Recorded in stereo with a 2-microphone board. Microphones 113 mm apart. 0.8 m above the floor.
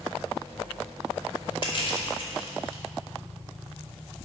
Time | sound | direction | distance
1.6 | crushing | 50° left (ahead or behind) | 2 m